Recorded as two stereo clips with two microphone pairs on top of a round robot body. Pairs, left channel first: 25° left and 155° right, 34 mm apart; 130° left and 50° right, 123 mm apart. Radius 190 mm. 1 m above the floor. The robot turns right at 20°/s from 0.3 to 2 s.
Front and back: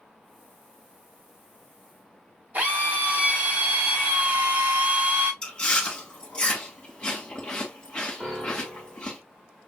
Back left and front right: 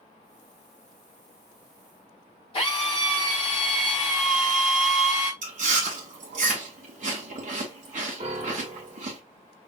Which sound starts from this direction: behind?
A drill, at 2.5 s.